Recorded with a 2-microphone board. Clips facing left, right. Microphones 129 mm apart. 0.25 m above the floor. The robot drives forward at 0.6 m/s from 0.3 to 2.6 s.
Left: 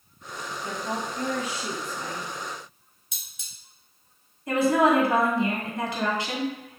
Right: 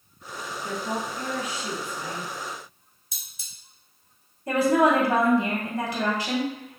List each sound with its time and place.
0.6 s a woman speaking: 30° left (ahead or behind), 1.4 m
3.1 s cutlery clinking: 35° right (ahead or behind), 1.6 m
4.5 s a woman speaking: 30° right (ahead or behind), 1.7 m